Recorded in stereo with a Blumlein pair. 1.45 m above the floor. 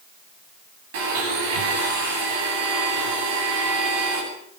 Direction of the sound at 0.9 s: 55° right.